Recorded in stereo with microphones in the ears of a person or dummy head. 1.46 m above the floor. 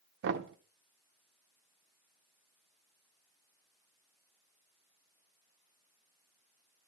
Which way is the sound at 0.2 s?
60° right (ahead or behind).